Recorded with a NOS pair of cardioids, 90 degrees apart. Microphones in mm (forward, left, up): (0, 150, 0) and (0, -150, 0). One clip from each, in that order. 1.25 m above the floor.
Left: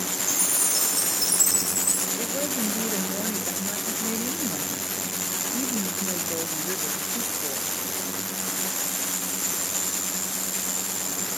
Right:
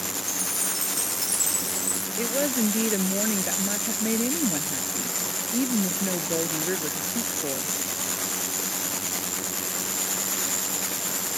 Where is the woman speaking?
40° right.